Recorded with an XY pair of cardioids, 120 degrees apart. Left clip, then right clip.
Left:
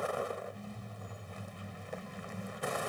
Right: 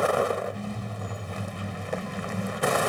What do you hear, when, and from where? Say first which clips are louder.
0.0 s a vehicle: right 12 dB; 65° right